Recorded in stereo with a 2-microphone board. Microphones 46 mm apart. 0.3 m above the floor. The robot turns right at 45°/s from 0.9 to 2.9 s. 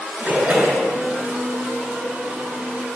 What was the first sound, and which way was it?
A splash, 30° right (ahead or behind).